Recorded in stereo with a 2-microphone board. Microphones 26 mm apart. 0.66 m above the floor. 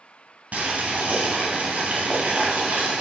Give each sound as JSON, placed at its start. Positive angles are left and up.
{"t": 0.5, "sound": "boiling", "side_deg": -70, "distance_m": 1.5}